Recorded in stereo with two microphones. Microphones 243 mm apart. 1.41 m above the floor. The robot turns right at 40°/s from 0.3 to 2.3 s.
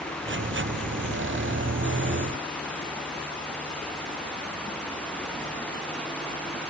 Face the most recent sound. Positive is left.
No sound to turn to.